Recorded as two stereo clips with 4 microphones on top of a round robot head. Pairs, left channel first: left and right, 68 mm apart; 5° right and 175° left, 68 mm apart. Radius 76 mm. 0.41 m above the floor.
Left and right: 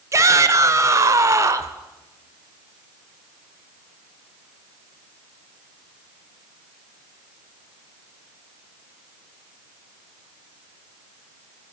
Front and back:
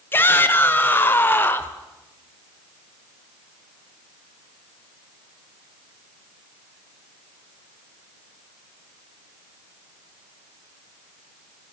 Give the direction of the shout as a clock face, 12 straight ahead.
2 o'clock.